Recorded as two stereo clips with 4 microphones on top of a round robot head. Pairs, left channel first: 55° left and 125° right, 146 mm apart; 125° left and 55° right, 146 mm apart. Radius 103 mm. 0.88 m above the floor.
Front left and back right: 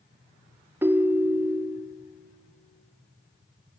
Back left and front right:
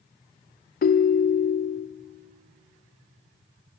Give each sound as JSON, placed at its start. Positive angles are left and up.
{"t": 0.8, "sound": "a ringtone", "azimuth_deg": 155, "distance_m": 0.6}